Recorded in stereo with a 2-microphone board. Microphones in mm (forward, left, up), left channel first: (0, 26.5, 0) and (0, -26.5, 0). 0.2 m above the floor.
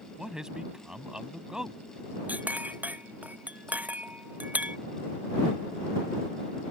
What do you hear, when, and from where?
0.2 s a man speaking: 15° right (ahead or behind)
2.3 s a clink: 30° right (ahead or behind)